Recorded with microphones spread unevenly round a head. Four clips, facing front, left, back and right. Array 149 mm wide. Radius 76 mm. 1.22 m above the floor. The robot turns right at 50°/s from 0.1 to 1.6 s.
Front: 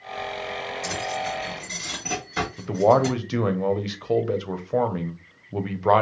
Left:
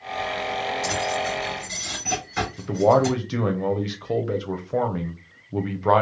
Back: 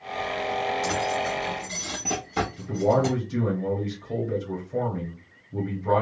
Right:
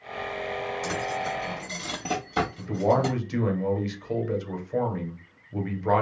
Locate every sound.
0.8 s keys jangling: 160° right, 1.3 m; by 3.1 s 120° right, 1.3 m
2.6 s a man speaking: 35° left, 0.8 m